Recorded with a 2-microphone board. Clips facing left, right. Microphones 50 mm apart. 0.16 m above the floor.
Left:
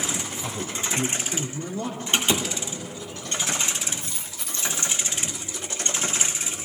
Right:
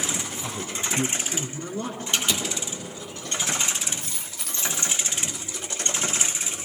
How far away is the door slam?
About 2.5 m.